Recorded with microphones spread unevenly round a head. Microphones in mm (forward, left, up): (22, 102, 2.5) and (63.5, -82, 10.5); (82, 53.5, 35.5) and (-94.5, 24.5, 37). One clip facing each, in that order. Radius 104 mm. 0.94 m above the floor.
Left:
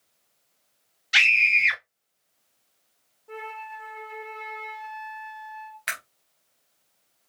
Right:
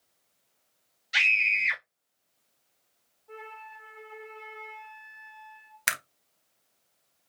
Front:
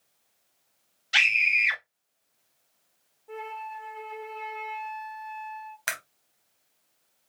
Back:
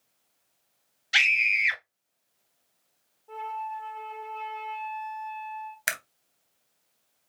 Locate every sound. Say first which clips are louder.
1.1 s a scream: left 5 dB, even; 115° left, 1.9 m
3.3 s a flute: left 7 dB, back 2 dB; 80° left, 1.3 m
5.9 s a camera shutter: right 4 dB, even; 100° right, 0.9 m